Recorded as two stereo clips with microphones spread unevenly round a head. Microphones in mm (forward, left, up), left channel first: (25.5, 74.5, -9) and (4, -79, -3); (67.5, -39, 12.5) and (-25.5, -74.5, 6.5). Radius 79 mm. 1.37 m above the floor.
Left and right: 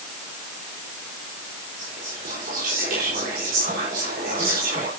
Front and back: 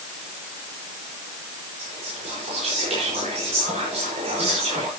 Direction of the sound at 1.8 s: 140° right.